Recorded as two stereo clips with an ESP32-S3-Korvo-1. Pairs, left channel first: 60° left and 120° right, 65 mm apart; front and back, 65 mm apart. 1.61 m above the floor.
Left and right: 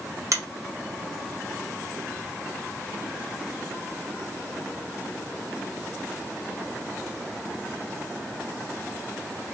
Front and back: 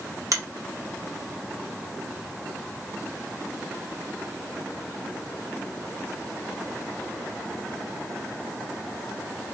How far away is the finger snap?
About 1.8 m.